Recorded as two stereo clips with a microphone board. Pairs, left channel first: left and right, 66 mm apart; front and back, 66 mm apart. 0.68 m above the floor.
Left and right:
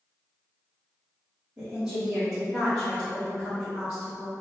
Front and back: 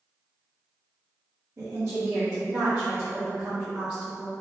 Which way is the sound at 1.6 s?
165° right.